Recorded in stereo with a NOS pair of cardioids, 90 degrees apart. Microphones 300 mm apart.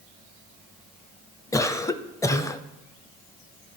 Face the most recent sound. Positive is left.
turn(degrees=10)